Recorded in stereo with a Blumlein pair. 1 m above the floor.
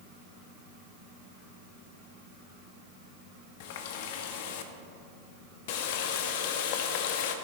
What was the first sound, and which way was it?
A running tap, 50° left.